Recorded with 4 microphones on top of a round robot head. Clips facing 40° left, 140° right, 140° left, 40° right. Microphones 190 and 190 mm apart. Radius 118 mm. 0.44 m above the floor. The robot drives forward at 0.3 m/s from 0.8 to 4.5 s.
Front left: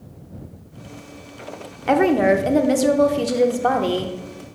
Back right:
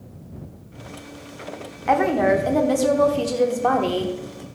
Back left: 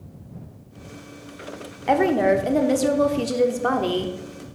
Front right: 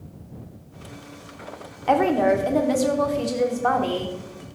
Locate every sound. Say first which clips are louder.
1.9 s a woman speaking: front left 3 dB, back left 1 dB; 70° left, 1.0 m; by 4.5 s 130° left, 1.1 m